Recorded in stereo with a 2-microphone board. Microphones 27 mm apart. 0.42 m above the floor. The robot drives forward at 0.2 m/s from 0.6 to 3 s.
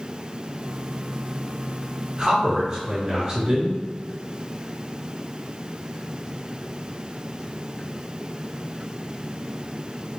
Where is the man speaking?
20° right (ahead or behind), 1.2 m.